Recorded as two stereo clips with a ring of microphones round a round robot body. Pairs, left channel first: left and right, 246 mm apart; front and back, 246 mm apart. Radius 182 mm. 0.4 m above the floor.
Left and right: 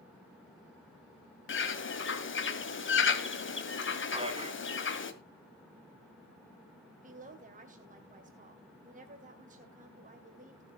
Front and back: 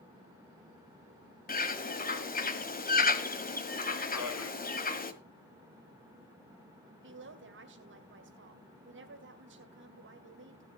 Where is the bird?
55° left, 2.0 m.